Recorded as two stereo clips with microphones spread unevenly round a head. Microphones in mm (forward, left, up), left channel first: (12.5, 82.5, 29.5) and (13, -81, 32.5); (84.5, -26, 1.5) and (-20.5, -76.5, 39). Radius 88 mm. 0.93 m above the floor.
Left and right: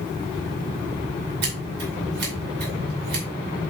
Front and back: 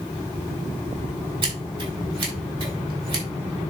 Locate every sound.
1.4 s scissors: 115° right, 4 m